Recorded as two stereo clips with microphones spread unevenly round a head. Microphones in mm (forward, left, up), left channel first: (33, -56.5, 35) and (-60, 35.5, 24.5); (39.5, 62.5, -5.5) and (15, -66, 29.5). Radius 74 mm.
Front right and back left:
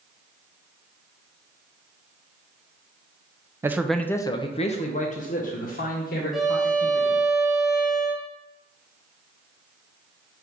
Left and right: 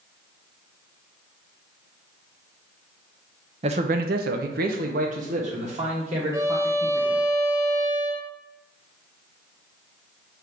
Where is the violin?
130° right, 0.6 m.